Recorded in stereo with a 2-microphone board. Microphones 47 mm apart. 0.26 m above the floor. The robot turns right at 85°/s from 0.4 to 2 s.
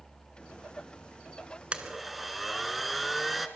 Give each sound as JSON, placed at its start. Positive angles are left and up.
{"t": 1.7, "sound": "a blender", "side_deg": -25, "distance_m": 1.2}